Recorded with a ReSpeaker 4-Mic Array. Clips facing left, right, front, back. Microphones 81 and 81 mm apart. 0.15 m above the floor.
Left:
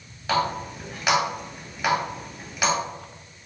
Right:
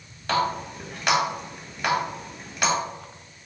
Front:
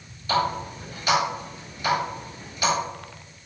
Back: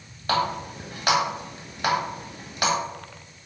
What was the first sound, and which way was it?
A running tap, 175° left.